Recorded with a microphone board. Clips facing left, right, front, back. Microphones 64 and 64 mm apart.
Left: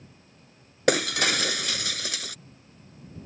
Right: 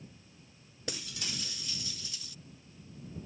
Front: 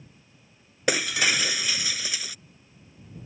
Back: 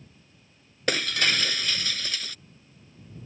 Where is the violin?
No violin in this recording.